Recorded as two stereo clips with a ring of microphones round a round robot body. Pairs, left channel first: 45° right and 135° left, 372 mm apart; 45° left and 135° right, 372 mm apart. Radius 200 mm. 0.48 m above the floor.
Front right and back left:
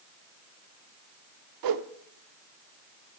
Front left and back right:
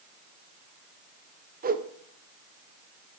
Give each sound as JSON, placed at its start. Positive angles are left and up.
{"t": 1.6, "sound": "a whoosh", "azimuth_deg": 160, "distance_m": 0.6}